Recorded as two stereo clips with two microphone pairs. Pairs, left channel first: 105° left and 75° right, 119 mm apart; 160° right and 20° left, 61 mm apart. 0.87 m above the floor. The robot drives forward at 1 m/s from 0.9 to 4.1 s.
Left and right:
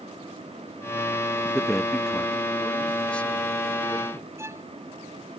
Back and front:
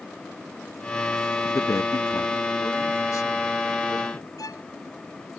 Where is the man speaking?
145° right; by 4.3 s 175° right.